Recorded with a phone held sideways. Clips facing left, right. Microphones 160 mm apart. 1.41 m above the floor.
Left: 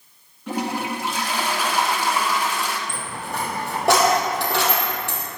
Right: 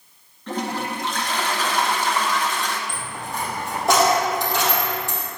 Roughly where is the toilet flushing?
Centre.